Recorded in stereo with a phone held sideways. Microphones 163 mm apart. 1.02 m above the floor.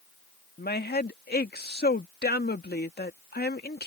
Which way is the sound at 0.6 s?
80° left.